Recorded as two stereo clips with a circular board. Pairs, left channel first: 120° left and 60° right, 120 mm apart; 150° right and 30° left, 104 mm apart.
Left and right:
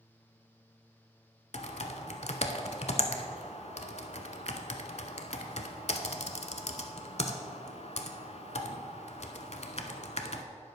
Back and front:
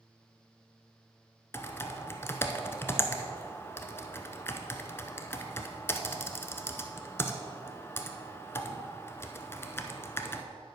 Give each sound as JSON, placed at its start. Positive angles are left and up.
{"t": 1.5, "sound": "typing on a keyboard", "azimuth_deg": 145, "distance_m": 0.6}